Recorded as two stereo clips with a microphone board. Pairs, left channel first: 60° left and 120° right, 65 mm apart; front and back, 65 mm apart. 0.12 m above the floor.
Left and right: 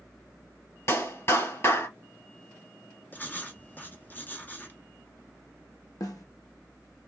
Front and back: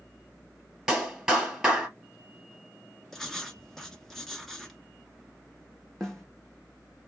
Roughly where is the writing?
Left.